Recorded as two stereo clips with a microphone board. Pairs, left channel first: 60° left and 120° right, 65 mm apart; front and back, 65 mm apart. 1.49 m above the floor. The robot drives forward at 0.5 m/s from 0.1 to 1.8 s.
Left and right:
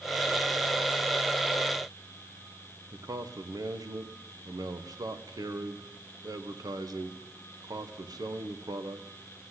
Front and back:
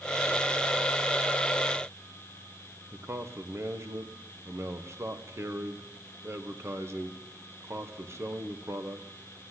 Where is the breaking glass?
No breaking glass in this recording.